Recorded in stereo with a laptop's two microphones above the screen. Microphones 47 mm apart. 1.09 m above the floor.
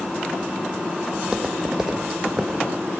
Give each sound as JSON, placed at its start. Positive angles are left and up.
{"t": 1.1, "sound": "footsteps", "side_deg": -25, "distance_m": 2.0}